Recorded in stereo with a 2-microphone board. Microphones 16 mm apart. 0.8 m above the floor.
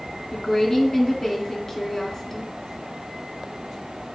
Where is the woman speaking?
30° left (ahead or behind), 1.3 m.